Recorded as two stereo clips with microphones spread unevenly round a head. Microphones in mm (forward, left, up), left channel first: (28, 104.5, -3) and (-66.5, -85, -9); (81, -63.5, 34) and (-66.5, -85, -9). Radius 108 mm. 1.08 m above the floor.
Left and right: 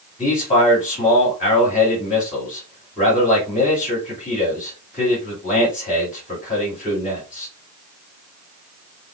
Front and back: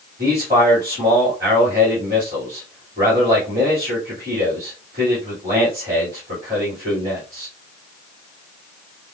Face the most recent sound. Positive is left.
turn(degrees=115)